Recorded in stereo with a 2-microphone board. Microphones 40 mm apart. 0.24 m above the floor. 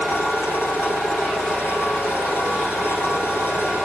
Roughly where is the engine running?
Left.